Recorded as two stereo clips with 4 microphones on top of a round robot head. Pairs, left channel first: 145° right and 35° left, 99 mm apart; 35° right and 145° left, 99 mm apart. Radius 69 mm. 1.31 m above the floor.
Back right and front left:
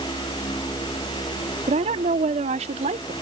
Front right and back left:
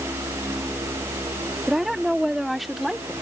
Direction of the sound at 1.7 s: 60° left.